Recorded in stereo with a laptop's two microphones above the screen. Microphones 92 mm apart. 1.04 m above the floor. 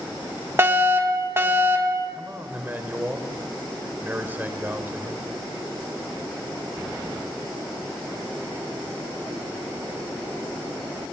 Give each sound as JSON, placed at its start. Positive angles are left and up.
{"t": 0.6, "sound": "a fire alarm", "side_deg": -25, "distance_m": 2.0}
{"t": 2.1, "sound": "a man speaking", "side_deg": -20, "distance_m": 4.0}